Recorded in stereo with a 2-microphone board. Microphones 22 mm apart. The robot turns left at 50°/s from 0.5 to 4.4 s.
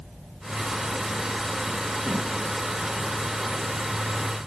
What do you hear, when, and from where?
2.0 s a whoosh: 85° right, 3 m; by 2.3 s 70° right (ahead or behind), 3 m